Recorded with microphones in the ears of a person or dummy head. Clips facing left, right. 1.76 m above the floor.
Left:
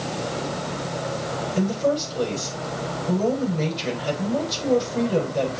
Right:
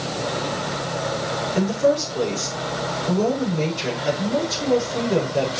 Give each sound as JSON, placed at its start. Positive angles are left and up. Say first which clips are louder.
{"t": 1.6, "sound": "a woman speaking", "louder": "right 3 dB", "side_deg": -75, "distance_m": 7.0}